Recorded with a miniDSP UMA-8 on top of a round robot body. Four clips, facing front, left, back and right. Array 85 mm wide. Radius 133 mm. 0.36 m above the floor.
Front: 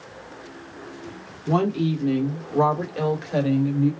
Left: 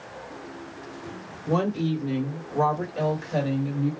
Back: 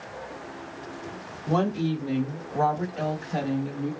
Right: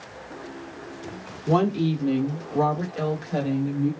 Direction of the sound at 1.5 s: 55° right.